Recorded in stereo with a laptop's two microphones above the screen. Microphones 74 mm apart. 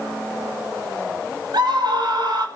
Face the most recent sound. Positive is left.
turn(degrees=-70)  # may be behind; listen again after turning